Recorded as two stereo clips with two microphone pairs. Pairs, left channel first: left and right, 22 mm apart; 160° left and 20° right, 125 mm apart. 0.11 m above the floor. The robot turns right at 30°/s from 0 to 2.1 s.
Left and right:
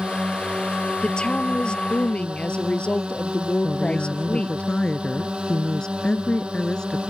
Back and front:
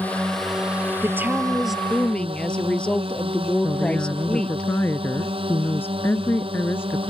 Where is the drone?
125° right; by 7.1 s 60° right.